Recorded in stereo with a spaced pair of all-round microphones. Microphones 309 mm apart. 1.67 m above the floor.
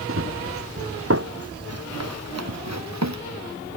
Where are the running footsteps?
45° right (ahead or behind); by 3.2 s 60° right (ahead or behind).